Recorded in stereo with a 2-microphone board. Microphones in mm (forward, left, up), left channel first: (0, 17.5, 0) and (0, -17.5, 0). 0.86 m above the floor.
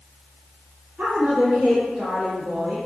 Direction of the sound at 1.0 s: 60° right (ahead or behind).